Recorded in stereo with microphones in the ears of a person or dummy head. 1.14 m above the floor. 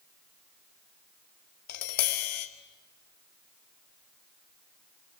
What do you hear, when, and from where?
1.7 s tapping: 50° left (ahead or behind), 1.3 m